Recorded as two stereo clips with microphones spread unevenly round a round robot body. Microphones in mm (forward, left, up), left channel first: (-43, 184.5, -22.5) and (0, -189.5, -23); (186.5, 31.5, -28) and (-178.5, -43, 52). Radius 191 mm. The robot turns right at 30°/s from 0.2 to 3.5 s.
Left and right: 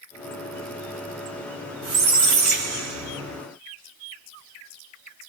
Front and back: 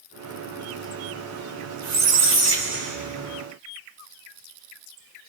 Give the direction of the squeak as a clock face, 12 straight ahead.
4 o'clock.